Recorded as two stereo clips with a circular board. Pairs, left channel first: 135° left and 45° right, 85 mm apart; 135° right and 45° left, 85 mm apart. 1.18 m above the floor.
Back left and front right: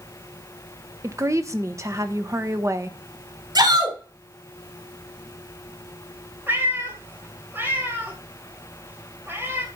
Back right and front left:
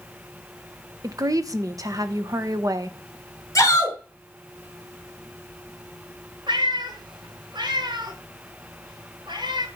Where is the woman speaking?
5° left, 1.0 m.